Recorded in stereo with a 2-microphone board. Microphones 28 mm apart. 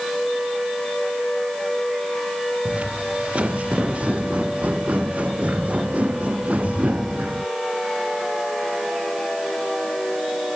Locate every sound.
2.6 s footsteps: 45° right (ahead or behind); by 7.5 s 55° right (ahead or behind)